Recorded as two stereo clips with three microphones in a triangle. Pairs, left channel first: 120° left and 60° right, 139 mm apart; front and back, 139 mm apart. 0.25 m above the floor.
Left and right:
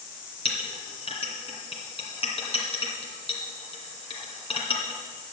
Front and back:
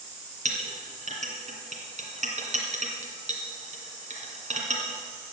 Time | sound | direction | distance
0.5 | a clink | 160° left | 2 m